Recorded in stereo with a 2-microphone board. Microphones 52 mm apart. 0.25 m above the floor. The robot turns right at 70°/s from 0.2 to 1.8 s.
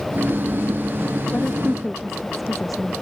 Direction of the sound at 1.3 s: 145° left.